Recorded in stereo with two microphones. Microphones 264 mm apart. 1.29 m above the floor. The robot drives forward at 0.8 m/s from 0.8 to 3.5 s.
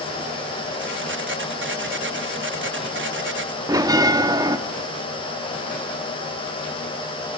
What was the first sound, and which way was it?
A bell, 15° right (ahead or behind).